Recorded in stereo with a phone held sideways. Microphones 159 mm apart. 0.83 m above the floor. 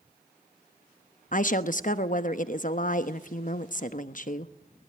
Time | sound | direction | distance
1.3 | a woman speaking | 55° left (ahead or behind) | 1.0 m